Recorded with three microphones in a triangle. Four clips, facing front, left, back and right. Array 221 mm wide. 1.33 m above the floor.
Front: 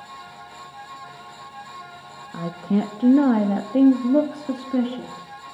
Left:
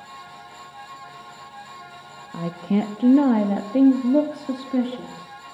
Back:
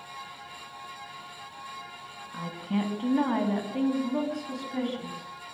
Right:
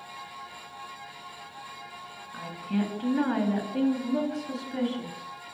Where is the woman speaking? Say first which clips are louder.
Left 7 dB, front 7 dB; 55° left, 1.7 m; by 5.3 s 35° left, 3 m.